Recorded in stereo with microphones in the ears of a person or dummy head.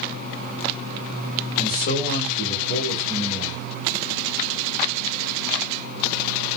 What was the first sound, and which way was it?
A man speaking, 45° left (ahead or behind).